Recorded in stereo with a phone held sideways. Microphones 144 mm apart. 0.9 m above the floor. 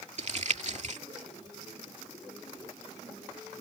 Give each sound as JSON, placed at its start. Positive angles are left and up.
{"t": 0.2, "sound": "crumpling", "side_deg": -55}